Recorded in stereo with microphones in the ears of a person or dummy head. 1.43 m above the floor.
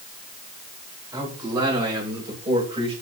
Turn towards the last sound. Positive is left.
turn(degrees=-25)  # may be behind; listen again after turning